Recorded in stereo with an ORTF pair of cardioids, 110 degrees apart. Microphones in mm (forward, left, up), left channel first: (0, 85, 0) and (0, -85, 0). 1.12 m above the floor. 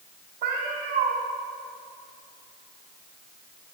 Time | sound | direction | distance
0.4 | a cat meowing | 65° right | 1.4 m